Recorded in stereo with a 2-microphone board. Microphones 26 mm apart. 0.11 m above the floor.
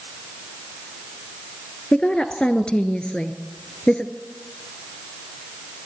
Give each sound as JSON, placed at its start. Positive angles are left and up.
{"t": 1.9, "sound": "a woman speaking", "side_deg": 40, "distance_m": 1.5}